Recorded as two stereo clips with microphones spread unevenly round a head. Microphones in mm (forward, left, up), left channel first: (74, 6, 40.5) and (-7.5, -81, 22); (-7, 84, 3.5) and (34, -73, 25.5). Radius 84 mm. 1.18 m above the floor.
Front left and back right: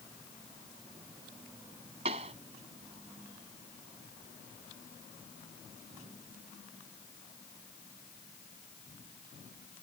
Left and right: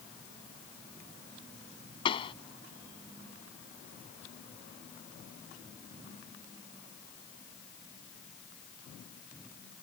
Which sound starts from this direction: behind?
A pop, at 2.0 s.